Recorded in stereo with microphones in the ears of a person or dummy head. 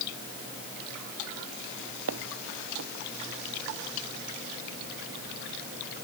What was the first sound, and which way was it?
Footsteps, 75° right (ahead or behind).